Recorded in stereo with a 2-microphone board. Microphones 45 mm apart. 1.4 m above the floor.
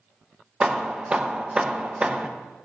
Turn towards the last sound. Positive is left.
turn(degrees=-25)  # may be behind; listen again after turning